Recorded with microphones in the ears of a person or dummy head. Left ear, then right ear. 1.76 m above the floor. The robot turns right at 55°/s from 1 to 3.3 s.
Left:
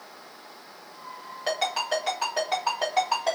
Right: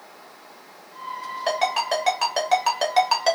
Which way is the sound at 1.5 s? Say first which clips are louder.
Right 4 dB; 5° right (ahead or behind).